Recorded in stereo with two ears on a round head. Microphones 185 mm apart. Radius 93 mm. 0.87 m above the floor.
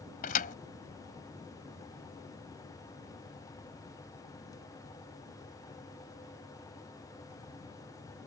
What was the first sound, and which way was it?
A thud, 40° left (ahead or behind).